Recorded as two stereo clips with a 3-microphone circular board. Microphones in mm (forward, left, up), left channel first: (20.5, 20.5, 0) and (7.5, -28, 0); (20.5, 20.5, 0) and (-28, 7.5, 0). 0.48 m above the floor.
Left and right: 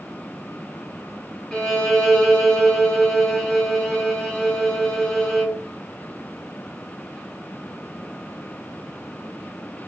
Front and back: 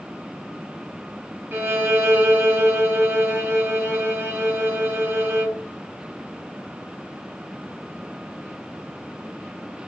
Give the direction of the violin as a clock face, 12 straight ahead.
7 o'clock.